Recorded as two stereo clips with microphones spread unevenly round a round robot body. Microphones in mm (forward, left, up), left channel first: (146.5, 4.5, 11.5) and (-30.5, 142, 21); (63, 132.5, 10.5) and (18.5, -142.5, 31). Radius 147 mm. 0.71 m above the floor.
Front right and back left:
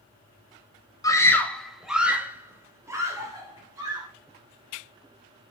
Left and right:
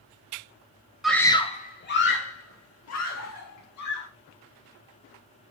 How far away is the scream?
About 0.9 m.